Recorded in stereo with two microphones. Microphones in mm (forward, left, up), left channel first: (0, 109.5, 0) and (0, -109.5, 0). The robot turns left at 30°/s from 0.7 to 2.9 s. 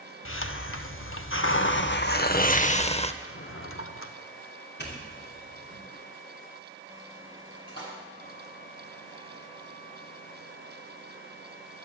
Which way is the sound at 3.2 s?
75° left (ahead or behind).